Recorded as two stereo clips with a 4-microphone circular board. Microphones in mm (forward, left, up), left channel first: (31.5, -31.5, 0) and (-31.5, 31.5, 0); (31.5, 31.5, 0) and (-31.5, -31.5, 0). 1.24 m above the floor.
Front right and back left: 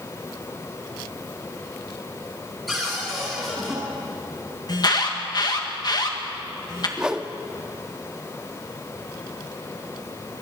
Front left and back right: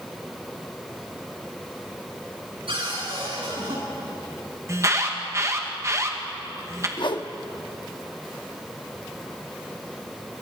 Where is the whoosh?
55° left, 1.0 m.